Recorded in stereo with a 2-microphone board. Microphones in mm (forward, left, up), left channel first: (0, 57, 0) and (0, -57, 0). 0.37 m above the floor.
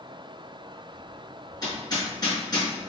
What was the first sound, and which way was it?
Hammering, 35° left (ahead or behind).